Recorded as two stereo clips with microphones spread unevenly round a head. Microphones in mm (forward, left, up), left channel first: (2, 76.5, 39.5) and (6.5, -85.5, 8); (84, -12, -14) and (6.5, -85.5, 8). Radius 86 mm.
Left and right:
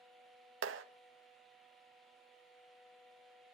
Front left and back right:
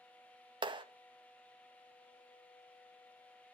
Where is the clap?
95° right, 1.7 m.